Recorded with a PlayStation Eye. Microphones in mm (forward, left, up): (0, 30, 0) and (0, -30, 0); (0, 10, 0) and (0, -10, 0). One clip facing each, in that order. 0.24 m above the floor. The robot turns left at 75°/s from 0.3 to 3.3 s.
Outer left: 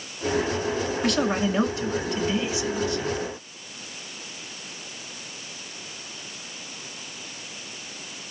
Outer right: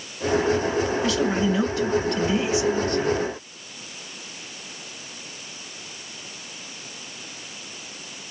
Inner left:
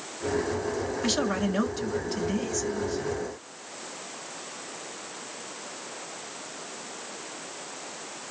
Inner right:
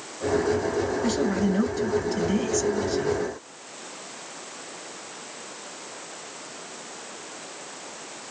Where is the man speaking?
85° left, 3 m; by 3.2 s 75° right, 3 m.